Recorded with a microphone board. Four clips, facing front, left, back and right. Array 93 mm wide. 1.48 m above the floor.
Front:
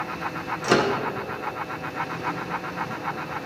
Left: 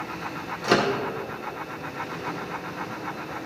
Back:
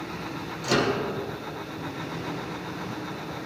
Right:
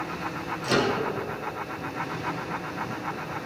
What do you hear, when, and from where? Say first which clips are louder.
0.6 s a microwave: left 3 dB, front 3 dB; 40° left, 1.0 m